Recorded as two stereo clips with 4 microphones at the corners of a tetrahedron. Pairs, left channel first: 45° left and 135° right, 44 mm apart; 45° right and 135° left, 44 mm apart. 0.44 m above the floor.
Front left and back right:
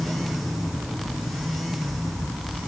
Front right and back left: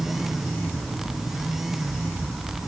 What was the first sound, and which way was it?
Only background noise.